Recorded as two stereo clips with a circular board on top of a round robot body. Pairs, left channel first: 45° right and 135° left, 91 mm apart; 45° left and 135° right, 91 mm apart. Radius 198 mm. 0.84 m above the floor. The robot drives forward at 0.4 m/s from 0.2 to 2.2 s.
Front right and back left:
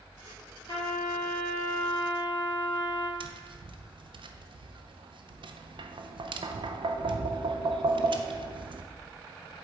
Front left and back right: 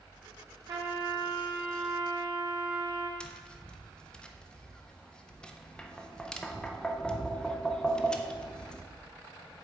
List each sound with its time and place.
0.7 s a trumpet: 80° right, 2.0 m; by 3.1 s 100° right, 2.0 m
3.2 s tapping: 125° left, 0.7 m